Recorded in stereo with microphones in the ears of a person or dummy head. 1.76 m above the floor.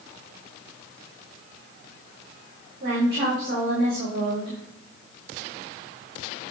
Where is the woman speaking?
70° right (ahead or behind), 6 m.